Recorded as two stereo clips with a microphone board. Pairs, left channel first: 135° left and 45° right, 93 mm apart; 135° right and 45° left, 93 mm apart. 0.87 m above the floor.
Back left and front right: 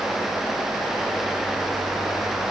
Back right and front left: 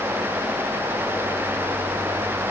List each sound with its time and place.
Only background noise.